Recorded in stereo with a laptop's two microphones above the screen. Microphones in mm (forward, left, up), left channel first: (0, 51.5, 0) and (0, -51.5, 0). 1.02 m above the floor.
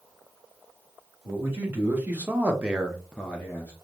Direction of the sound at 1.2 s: 20° right (ahead or behind).